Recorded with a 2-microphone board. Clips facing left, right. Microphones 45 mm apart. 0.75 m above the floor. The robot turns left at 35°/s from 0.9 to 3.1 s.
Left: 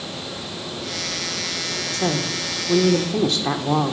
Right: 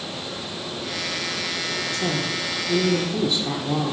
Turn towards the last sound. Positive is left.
turn(degrees=90)